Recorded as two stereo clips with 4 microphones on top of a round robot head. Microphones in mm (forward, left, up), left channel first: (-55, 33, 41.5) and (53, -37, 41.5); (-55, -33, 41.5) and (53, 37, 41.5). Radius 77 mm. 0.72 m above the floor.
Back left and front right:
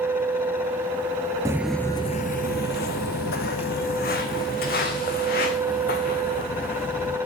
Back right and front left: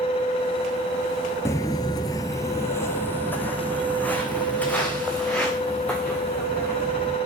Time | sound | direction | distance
1.4 | footsteps | 85° right | 0.8 m